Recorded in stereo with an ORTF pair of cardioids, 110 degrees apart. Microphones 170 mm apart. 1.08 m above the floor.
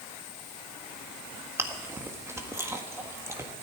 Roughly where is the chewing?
Ahead.